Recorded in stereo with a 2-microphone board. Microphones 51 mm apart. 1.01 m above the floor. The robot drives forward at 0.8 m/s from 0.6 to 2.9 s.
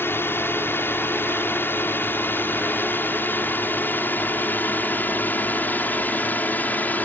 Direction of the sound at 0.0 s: 50° left (ahead or behind).